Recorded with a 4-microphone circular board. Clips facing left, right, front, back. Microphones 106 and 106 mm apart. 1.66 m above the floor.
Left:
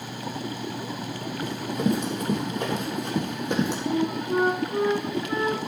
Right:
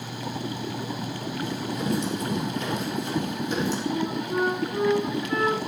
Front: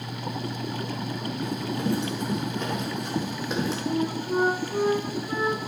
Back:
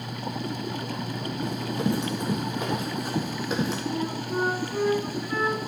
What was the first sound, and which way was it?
Running footsteps, 120° left.